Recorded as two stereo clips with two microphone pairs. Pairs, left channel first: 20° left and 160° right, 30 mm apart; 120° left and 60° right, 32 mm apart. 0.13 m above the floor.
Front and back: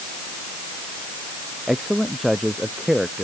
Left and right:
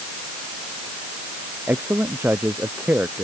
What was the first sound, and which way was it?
A man speaking, 80° right.